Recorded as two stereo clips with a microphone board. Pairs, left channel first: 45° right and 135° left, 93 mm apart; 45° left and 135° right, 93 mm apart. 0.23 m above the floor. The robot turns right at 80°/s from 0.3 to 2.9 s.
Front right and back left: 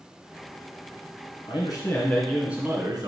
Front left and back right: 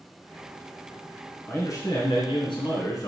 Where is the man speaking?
25° right, 2.5 m; by 3.1 s 90° left, 2.5 m.